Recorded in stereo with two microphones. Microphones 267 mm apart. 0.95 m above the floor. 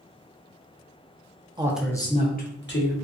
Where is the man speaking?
15° right (ahead or behind), 0.5 m; by 2.9 s 45° left (ahead or behind), 1.1 m.